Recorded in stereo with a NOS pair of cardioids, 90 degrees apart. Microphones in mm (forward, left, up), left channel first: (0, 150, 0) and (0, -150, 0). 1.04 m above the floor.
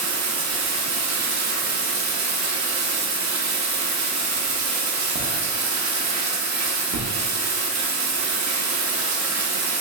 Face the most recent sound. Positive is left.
turn(degrees=-65)